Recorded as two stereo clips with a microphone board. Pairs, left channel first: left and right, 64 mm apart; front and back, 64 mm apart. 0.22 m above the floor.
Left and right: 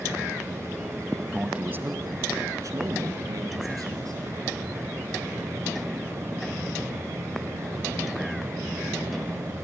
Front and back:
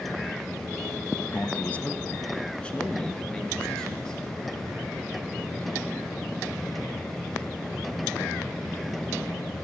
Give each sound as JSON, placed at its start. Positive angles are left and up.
{"t": 1.3, "sound": "a man speaking", "azimuth_deg": -20, "distance_m": 1.1}